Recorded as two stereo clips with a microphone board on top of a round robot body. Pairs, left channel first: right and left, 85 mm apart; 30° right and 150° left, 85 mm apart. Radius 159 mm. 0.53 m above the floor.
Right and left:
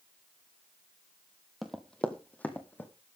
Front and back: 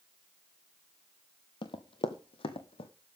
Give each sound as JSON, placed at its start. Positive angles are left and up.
{"t": 1.6, "sound": "running footsteps", "azimuth_deg": 0, "distance_m": 1.0}